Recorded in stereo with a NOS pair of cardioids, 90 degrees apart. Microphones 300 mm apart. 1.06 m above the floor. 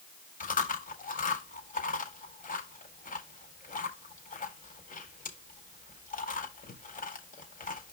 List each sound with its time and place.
0.4 s chewing: 30° left, 4 m